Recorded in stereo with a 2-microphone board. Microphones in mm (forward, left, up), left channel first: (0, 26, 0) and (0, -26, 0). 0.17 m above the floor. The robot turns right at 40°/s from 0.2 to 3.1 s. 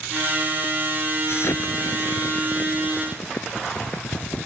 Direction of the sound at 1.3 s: 55° left (ahead or behind).